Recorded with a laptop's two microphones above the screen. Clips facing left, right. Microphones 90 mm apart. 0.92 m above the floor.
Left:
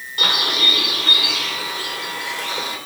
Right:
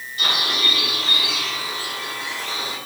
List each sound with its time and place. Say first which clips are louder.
0.2 s a bird: left 2 dB; 85° left, 2.5 m